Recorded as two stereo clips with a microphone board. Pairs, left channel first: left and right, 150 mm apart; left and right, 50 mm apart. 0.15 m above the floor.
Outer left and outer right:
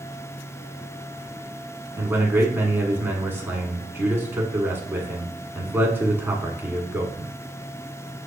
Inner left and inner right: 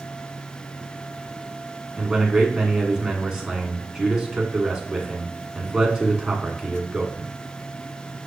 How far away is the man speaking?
About 1.1 m.